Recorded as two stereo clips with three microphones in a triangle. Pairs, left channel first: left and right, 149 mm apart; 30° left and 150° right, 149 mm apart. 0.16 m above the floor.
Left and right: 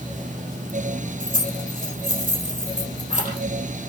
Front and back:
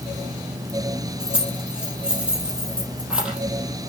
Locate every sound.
1.2 s keys jangling: 65° right, 4 m